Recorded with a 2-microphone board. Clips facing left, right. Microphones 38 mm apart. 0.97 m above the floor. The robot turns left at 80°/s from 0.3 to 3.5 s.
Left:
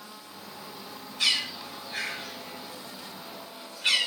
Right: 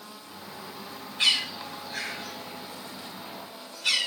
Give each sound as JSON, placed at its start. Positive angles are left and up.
{"t": 1.2, "sound": "a bird", "side_deg": -40, "distance_m": 4.0}